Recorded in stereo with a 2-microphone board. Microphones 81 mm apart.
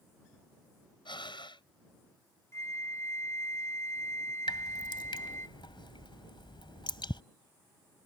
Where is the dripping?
80° left.